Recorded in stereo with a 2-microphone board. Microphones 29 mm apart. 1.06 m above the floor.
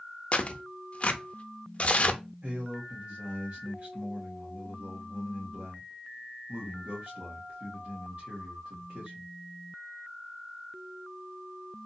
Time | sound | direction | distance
0.3 | tearing paper | 40° left (ahead or behind) | 0.6 m
2.4 | a man speaking | 60° right (ahead or behind) | 1.5 m